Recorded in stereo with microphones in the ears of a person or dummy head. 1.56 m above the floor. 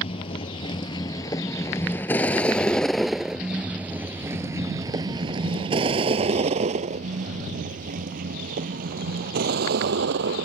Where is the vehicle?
30° left (ahead or behind); by 10.5 s 55° right (ahead or behind).